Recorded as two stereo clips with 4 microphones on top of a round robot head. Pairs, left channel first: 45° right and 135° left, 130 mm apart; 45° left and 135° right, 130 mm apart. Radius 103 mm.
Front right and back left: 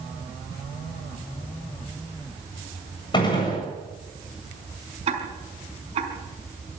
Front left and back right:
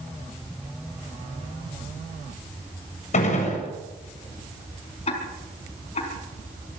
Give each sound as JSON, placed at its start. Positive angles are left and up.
{"t": 3.1, "sound": "a gunshot", "azimuth_deg": 10, "distance_m": 7.5}
{"t": 5.1, "sound": "ticking", "azimuth_deg": 90, "distance_m": 4.0}